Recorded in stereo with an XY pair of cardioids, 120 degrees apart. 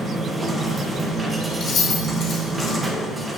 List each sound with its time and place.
0.0 s a machine running: 20° right, 1.5 m
1.6 s keys jangling: 50° left, 3.5 m